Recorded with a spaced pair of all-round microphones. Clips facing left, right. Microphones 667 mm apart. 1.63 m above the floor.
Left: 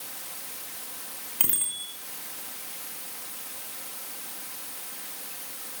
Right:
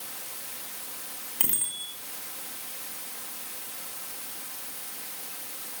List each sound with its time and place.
1.4 s a bicycle bell: 5° left (ahead or behind), 5 m